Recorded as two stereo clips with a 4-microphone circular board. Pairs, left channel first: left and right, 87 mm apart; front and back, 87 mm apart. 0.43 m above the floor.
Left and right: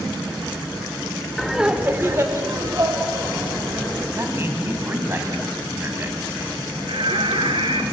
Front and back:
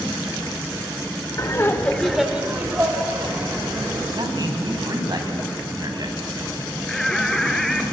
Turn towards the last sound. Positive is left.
turn(degrees=-85)